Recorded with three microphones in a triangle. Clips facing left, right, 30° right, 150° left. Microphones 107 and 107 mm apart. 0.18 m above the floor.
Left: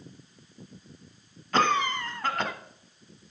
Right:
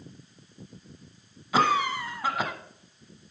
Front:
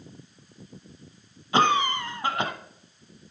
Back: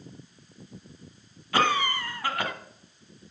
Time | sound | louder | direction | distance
1.5 | a cough | right 1 dB, front 3 dB | 15° right | 1.3 m